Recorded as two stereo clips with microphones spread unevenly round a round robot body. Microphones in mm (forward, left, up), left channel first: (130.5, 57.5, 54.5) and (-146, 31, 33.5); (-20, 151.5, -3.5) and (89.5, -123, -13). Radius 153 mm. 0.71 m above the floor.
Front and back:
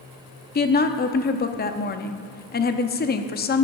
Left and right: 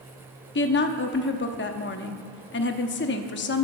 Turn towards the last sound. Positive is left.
turn(degrees=60)